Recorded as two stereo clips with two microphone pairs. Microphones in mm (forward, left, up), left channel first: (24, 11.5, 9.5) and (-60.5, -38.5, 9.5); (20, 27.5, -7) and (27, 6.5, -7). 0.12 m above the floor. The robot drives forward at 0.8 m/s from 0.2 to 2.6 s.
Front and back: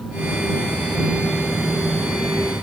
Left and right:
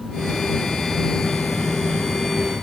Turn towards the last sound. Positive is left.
No sound to turn to.